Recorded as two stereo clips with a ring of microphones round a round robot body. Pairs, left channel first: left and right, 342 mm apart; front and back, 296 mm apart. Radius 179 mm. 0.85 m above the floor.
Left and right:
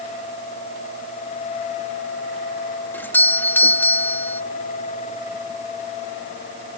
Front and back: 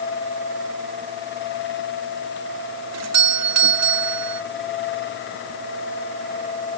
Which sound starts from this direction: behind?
A doorbell, at 2.9 s.